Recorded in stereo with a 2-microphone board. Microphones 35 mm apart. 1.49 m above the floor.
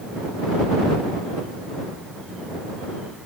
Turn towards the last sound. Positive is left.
No sound to turn to.